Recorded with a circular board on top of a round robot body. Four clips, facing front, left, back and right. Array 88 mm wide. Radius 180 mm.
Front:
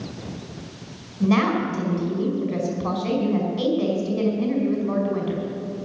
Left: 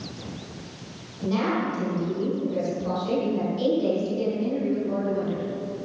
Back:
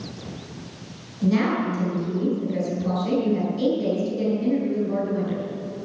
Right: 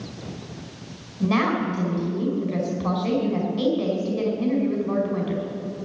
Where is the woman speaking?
45° right, 5 m.